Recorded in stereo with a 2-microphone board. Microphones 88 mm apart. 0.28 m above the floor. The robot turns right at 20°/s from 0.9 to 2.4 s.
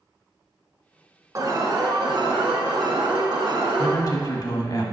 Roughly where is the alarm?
Right.